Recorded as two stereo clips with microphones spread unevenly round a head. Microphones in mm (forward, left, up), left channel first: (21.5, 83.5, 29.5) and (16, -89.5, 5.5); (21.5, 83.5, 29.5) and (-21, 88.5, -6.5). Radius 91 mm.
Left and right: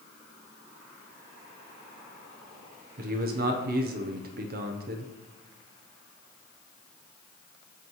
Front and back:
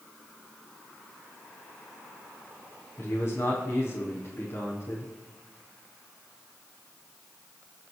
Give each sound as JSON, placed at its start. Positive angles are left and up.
{"t": 3.0, "sound": "a man speaking", "azimuth_deg": -55, "distance_m": 0.8}